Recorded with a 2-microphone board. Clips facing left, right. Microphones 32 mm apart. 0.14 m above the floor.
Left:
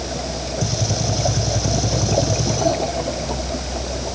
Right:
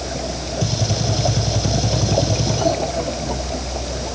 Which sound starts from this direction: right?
A gunshot, at 0.6 s.